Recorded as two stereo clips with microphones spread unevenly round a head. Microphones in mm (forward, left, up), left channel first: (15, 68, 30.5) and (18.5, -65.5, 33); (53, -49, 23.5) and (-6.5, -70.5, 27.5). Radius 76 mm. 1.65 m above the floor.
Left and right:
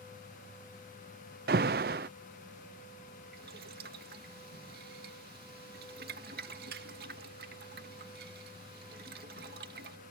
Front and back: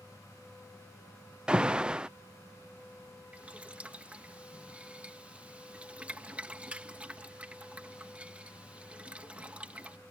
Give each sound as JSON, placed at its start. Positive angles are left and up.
{"t": 1.5, "sound": "an alarm", "azimuth_deg": -85}
{"t": 3.3, "sound": "boiling", "azimuth_deg": -90}